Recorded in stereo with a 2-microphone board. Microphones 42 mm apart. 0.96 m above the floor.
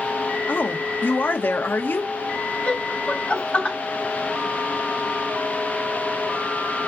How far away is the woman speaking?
About 1.2 m.